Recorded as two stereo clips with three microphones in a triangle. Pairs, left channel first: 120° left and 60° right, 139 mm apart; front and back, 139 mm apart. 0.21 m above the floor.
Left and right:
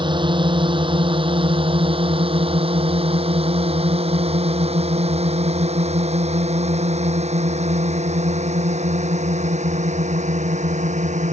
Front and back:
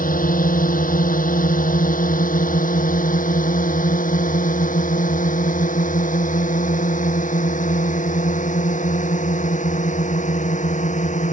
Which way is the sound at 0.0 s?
5° right.